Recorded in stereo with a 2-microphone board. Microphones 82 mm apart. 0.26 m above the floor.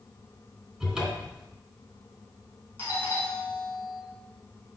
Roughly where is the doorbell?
Left.